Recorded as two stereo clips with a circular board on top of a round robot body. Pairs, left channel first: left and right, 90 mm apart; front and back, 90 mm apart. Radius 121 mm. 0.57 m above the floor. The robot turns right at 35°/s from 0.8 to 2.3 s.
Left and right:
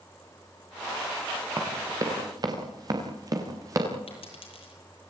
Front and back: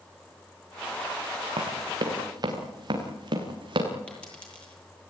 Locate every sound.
1.6 s running footsteps: 155° right, 6 m; by 3.9 s 145° right, 7 m
4.1 s a dropped coin: 80° left, 10 m